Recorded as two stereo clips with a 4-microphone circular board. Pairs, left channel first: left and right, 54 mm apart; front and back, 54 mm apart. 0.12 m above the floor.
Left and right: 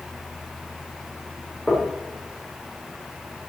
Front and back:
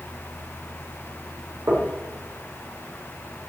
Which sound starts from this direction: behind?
Knocking, at 1.7 s.